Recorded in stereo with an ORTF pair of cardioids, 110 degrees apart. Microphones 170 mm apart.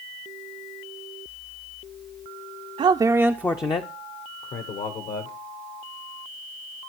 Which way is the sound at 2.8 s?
35° right.